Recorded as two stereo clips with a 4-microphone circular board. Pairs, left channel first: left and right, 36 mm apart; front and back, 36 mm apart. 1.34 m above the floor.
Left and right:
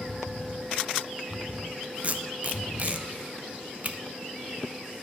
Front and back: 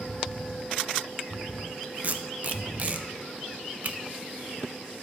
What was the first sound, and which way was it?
Tape being pulled, 140° right.